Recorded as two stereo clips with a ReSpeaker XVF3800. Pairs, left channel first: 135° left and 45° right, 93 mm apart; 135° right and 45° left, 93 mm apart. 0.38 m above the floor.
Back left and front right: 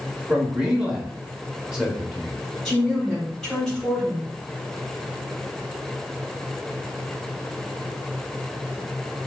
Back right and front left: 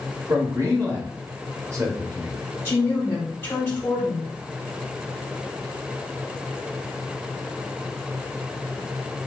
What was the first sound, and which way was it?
A man speaking, 30° left.